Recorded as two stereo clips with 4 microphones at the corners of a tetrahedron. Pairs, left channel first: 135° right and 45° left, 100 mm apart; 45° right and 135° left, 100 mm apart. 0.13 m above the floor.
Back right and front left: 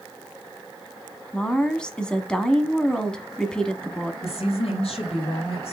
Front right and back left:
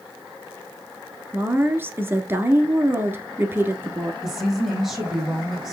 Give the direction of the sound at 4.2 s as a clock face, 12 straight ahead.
5 o'clock.